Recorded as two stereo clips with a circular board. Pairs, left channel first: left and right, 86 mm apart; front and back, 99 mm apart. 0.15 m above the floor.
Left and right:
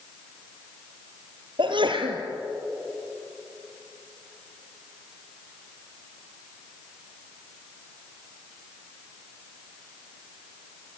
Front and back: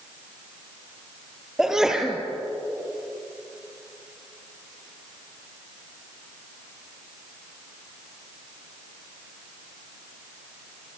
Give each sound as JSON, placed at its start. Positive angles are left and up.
{"t": 1.6, "sound": "a sneeze", "azimuth_deg": -95, "distance_m": 3.5}